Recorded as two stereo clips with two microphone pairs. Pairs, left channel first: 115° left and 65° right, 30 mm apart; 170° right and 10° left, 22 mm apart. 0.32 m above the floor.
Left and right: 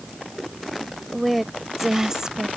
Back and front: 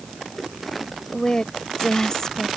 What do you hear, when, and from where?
1.1 s a woman speaking: 160° right; by 2.5 s 115° right